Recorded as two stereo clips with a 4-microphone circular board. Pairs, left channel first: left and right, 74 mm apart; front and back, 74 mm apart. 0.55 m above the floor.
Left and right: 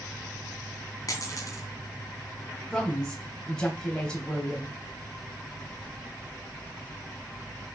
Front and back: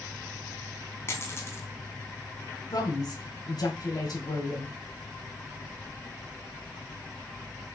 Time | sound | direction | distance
1.1 | a dropped coin | 50° left | 2 m
2.7 | a woman speaking | 10° left | 2.5 m